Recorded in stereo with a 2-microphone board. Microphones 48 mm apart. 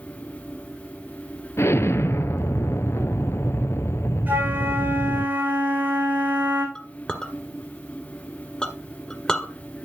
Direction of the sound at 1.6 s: 65° left (ahead or behind).